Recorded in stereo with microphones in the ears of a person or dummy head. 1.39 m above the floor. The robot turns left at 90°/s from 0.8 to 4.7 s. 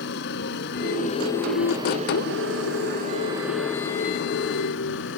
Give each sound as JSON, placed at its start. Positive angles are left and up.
{"t": 0.0, "sound": "a motorcycle", "azimuth_deg": 70}